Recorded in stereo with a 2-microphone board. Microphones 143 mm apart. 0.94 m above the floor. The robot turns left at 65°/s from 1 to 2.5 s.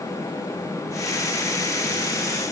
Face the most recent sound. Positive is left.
No sound to turn to.